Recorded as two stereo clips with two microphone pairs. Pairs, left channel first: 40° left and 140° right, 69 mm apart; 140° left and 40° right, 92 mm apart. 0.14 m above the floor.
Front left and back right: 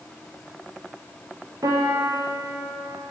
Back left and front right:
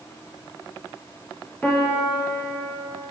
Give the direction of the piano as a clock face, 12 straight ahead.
5 o'clock.